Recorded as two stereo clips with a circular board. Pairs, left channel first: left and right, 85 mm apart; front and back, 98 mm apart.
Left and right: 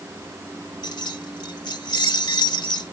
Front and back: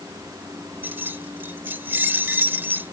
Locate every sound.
0.8 s keys jangling: 110° left